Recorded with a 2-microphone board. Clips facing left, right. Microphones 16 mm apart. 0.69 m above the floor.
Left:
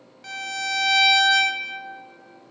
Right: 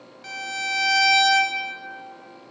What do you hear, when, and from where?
0.2 s a violin: 10° right (ahead or behind), 0.9 m